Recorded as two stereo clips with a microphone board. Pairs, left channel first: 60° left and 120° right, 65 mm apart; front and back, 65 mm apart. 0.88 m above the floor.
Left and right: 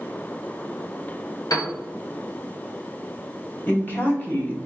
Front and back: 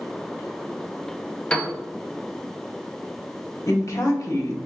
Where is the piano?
75° left, 0.9 m.